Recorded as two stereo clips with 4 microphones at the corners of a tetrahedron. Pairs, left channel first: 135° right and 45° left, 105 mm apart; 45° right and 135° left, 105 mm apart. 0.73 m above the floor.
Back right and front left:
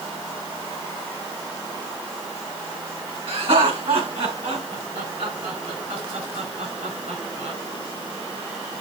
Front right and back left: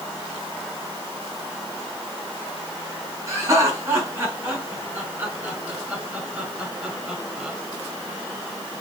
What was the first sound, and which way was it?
Laughter, 75° left.